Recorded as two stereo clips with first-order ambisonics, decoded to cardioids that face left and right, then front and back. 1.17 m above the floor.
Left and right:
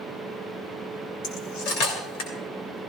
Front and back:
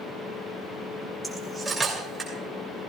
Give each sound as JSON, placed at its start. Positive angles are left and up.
{"t": 1.2, "sound": "cutlery clinking", "azimuth_deg": 100, "distance_m": 2.5}